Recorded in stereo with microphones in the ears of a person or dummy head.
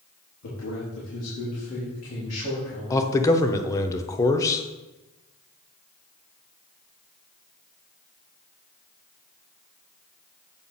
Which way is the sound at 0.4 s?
75° left (ahead or behind).